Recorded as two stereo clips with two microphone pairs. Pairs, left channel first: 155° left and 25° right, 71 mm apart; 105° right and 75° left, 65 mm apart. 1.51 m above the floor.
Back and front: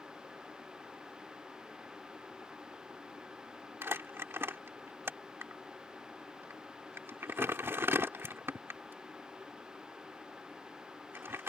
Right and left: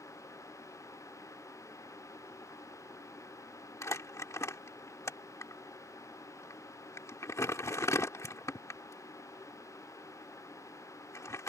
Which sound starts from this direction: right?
Crumpling, at 3.8 s.